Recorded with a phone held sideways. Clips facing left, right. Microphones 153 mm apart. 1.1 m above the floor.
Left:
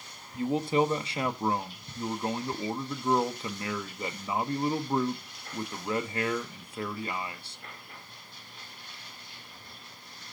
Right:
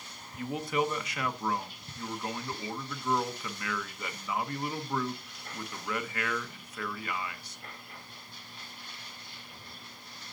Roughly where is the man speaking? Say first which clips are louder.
Left 5 dB; left.